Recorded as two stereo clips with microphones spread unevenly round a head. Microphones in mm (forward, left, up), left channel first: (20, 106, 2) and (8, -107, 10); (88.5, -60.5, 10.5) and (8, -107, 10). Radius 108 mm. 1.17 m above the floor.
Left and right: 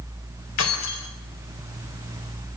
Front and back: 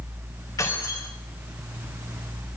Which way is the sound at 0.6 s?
105° left.